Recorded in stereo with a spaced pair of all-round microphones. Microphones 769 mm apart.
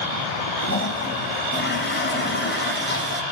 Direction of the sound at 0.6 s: 15° left (ahead or behind).